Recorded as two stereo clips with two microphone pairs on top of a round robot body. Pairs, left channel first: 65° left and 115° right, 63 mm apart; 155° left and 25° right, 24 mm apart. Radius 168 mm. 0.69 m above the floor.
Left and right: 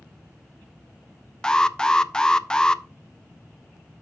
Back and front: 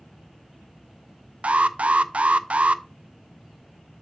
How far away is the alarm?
About 0.5 m.